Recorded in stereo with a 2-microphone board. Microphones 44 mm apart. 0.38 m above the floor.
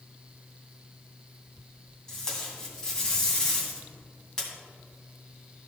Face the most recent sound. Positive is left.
turn(degrees=15)  # may be behind; listen again after turning